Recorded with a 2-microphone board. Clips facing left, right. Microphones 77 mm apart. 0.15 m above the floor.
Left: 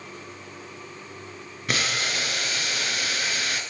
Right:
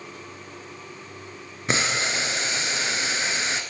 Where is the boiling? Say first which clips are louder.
Right 2 dB; 25° right (ahead or behind), 0.7 m.